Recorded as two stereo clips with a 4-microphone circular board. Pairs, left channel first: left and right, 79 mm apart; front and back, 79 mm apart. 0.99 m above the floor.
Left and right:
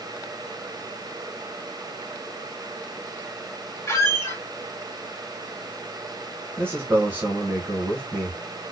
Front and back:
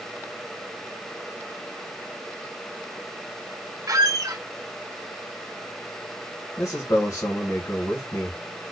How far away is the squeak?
About 0.7 m.